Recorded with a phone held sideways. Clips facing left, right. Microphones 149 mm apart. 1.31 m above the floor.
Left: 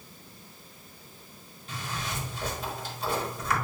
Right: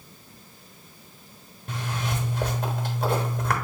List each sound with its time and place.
1.7 s a zipper: 55° right (ahead or behind), 1.0 m